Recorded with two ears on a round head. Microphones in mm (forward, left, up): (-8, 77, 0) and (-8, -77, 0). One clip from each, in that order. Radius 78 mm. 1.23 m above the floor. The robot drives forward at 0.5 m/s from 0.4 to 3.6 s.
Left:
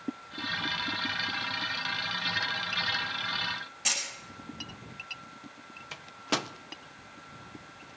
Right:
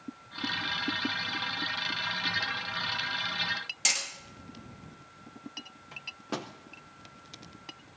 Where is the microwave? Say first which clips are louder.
Left 6 dB; 55° left (ahead or behind), 0.6 m.